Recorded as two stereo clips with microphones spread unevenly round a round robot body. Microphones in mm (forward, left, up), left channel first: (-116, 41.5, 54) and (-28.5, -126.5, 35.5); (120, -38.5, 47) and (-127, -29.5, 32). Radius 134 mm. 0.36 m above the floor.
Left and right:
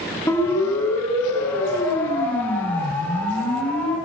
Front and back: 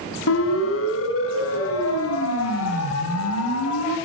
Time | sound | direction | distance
0.3 | a siren | 35° left | 5.5 m